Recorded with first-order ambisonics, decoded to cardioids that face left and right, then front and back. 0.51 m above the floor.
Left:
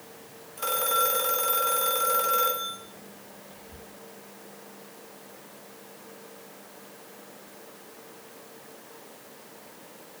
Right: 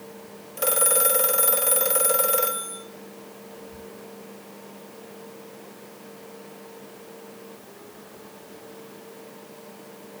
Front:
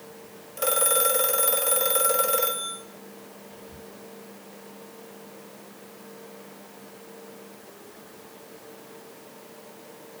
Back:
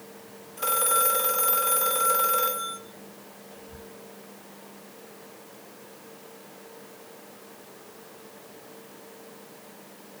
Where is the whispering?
Straight ahead, 1.2 m.